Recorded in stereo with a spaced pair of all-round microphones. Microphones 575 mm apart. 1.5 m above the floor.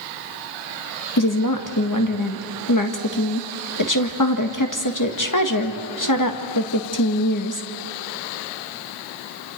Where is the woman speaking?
30° left (ahead or behind), 1.8 m.